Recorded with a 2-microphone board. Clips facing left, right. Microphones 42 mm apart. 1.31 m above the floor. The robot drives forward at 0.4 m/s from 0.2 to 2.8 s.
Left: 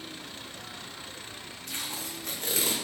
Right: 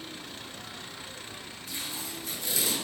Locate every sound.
1.7 s tape being pulled: 60° left (ahead or behind), 0.6 m; by 2.8 s 40° left (ahead or behind), 0.7 m